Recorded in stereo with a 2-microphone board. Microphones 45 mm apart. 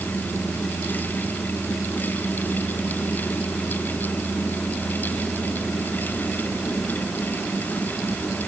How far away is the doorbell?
I don't hear a doorbell.